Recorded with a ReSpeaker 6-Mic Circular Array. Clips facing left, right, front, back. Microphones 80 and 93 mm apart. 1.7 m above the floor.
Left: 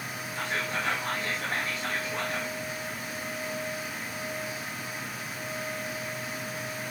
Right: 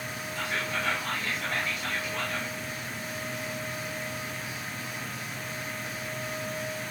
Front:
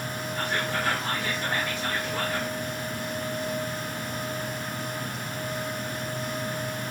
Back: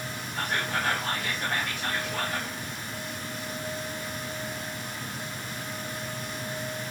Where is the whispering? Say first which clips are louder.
Left 1 dB, even; 145° left, 2 m.